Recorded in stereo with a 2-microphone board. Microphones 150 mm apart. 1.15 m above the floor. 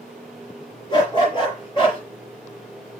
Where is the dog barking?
30° left (ahead or behind), 7 m; by 2.0 s 35° left (ahead or behind), 6.5 m.